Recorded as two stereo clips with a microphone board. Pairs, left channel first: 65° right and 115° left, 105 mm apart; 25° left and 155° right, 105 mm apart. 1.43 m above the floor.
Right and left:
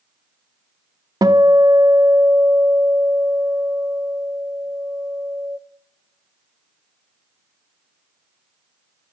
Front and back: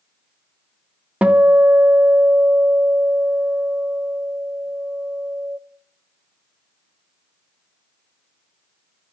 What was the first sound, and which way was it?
A guitar, 130° left.